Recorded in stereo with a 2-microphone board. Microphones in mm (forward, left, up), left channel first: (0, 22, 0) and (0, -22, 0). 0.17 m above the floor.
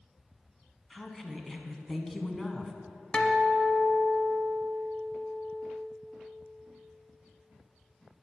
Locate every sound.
0.9 s a woman speaking: 5° left (ahead or behind), 1.3 m
3.1 s a guitar: 20° left (ahead or behind), 1.1 m